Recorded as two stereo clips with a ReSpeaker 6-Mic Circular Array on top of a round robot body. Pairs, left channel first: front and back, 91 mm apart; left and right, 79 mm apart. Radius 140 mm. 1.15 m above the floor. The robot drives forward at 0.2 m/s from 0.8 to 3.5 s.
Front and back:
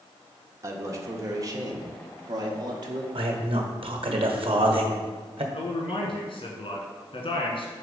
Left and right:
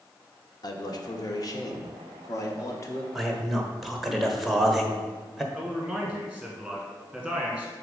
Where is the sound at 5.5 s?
5° left, 1.2 m.